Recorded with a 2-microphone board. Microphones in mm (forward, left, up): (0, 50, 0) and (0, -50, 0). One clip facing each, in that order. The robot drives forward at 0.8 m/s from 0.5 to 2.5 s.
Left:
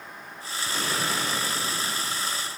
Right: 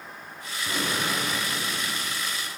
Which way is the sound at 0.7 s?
10° right (ahead or behind).